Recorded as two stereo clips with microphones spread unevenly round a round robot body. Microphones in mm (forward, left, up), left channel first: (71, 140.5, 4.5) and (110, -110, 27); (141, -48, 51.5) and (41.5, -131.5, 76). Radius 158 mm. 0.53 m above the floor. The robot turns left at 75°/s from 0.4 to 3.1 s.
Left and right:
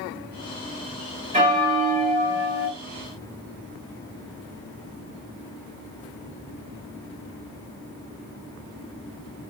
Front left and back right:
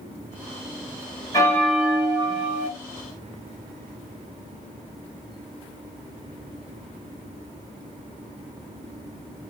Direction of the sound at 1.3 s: 15° right.